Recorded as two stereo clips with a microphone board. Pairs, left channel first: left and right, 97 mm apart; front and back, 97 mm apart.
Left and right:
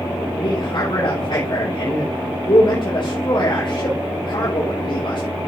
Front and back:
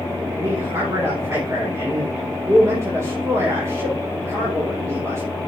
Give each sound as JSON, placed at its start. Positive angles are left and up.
{"t": 0.4, "sound": "a man speaking", "azimuth_deg": 120, "distance_m": 4.0}